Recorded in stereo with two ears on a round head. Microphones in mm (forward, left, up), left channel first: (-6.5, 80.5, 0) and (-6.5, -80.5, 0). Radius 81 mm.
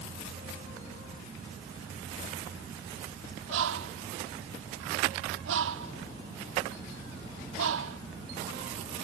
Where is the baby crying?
No baby crying in this recording.